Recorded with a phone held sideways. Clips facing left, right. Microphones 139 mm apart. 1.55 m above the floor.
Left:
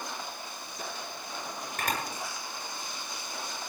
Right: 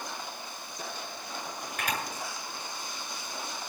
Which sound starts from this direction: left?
A camera shutter, at 1.8 s.